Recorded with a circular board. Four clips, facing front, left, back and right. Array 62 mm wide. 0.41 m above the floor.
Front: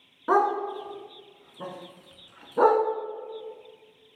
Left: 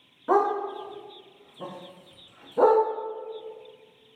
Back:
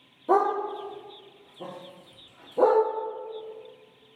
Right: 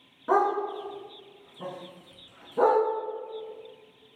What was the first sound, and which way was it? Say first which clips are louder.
A dog barking: left 1 dB, even; straight ahead.